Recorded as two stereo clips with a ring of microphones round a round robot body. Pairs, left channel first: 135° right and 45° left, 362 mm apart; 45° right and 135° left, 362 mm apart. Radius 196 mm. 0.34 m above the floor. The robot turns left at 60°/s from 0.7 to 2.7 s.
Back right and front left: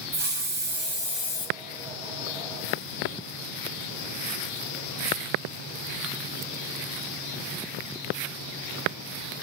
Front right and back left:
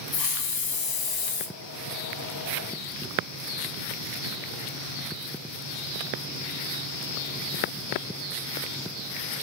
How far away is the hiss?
About 1.8 m.